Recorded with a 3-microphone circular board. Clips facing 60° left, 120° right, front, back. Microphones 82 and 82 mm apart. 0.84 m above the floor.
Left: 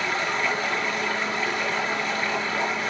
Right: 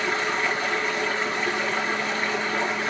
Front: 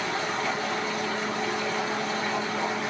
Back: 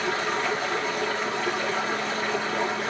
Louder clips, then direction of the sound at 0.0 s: Right 1 dB, back 2 dB; 175° left.